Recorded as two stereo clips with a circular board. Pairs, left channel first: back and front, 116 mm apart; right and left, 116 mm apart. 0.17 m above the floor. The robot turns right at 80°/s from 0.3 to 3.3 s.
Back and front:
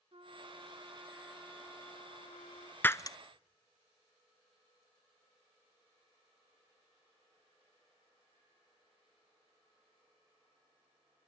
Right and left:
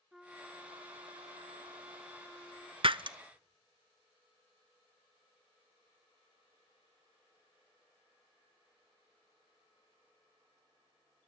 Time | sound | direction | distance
0.1 | a trumpet | 5° left | 1.5 m
2.8 | breaking glass | 110° left | 0.5 m